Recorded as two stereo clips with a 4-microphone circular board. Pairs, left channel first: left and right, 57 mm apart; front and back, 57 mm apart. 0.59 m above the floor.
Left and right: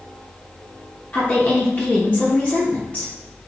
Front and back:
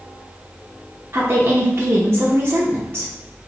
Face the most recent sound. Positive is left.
turn(degrees=140)